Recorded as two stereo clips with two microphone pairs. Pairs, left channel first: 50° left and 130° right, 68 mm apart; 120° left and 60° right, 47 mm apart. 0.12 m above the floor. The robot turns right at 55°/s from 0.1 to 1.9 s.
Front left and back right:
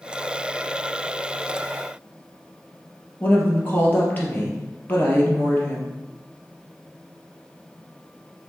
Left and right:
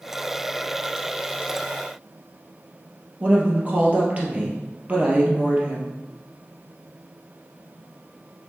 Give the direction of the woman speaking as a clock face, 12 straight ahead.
12 o'clock.